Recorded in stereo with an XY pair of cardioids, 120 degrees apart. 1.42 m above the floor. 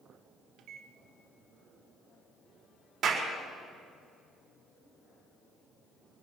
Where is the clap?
45° right, 4 m.